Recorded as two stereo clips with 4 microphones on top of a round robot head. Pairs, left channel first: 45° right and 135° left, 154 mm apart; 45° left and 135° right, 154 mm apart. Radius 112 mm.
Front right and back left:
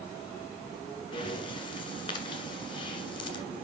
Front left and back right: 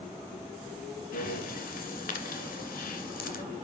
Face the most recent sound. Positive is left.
turn(degrees=15)